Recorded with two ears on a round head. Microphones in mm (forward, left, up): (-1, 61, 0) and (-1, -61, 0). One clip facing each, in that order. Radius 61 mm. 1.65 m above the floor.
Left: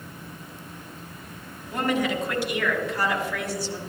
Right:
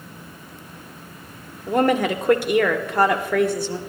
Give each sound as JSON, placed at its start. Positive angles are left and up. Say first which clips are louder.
{"t": 1.7, "sound": "a woman speaking", "louder": "right 6 dB", "side_deg": -45, "distance_m": 1.5}